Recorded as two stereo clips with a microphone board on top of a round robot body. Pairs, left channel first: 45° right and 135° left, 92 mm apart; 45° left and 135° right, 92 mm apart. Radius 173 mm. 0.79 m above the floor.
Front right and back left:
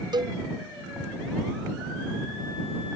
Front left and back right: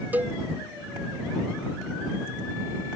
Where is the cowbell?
155° left.